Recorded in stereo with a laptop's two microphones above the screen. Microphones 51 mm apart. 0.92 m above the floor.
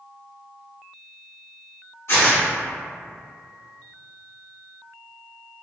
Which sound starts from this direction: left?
Tearing paper, at 2.1 s.